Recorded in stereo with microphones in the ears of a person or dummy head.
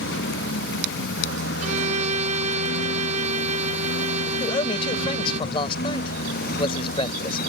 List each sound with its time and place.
0.0 s a lawn mower: 70° left (ahead or behind); by 7.5 s 55° left (ahead or behind)
1.6 s a violin: 40° right (ahead or behind)
4.4 s a man speaking: 30° left (ahead or behind)